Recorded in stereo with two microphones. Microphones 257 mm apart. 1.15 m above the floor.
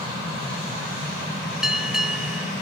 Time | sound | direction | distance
1.6 | a bell | centre (ahead or behind) | 1.9 m